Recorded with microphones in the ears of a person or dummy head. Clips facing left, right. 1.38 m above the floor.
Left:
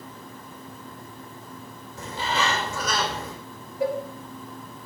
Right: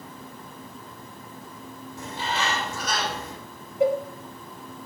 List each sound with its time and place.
2.0 s a bird: 75° left (ahead or behind), 4.5 m
3.8 s a cowbell: 20° right (ahead or behind), 2 m